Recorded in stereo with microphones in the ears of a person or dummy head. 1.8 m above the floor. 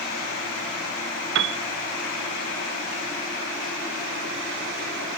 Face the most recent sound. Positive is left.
turn(degrees=-65)  # may be behind; listen again after turning